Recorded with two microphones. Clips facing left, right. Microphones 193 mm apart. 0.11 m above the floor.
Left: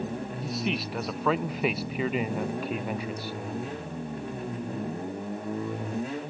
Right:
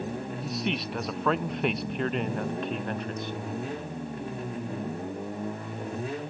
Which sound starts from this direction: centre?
A man speaking, at 0.4 s.